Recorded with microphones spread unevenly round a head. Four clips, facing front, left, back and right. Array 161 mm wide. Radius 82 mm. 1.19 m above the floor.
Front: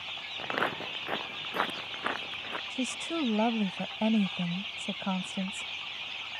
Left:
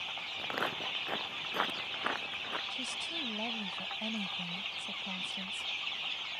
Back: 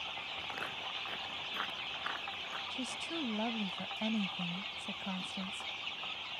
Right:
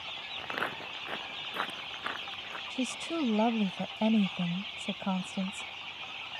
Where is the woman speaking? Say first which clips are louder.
Right 10 dB, front 9 dB; 45° right.